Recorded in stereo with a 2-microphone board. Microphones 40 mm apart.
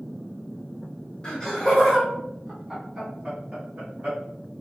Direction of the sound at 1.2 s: 20° left (ahead or behind).